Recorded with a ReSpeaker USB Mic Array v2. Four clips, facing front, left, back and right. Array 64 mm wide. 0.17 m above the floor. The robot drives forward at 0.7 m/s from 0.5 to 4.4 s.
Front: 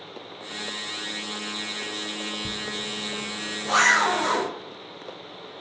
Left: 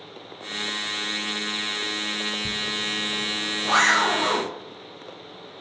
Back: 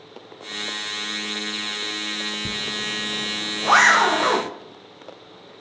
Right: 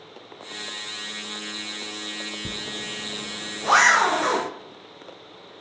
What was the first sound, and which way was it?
A zipper, 125° right.